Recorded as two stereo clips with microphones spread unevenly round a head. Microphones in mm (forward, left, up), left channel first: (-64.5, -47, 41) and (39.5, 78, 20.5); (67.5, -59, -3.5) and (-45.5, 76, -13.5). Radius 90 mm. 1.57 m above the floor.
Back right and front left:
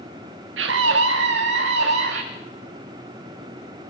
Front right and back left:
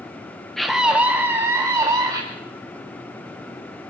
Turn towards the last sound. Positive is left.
turn(degrees=60)